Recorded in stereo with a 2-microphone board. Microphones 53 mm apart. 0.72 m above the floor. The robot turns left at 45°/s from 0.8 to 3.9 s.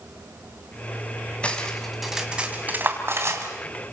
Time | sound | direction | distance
1.4 | cutlery clinking | 25° left (ahead or behind) | 3 m